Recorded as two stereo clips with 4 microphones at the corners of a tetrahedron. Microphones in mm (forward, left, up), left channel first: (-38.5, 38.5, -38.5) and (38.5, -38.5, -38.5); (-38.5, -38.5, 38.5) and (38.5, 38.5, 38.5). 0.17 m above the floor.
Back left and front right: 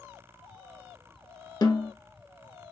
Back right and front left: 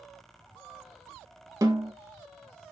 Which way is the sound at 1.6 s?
95° left.